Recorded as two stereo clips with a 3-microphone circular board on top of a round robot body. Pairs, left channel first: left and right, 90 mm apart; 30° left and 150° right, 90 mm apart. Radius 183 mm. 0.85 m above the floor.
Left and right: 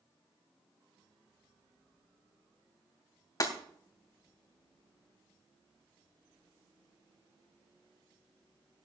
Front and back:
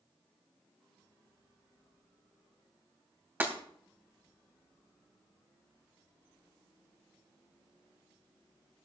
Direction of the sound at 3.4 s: 140° left.